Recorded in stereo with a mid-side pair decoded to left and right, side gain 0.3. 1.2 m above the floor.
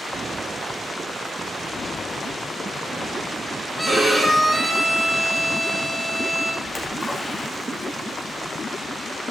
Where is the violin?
20° right, 4 m.